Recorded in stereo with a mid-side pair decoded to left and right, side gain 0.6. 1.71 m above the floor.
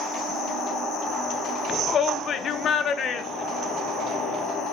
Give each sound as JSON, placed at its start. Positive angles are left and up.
{"t": 1.7, "sound": "a shout", "azimuth_deg": 40, "distance_m": 1.1}